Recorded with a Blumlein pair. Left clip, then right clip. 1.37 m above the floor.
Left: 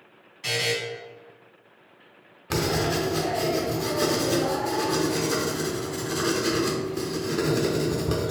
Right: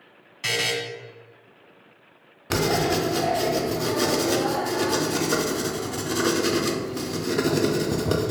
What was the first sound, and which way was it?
A buzzer, 20° right.